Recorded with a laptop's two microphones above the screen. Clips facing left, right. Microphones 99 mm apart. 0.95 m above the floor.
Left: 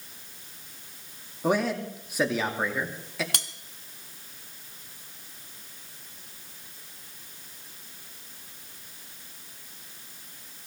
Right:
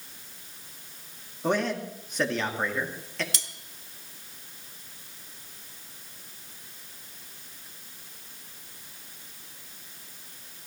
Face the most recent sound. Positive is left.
turn(degrees=55)  # may be behind; listen again after turning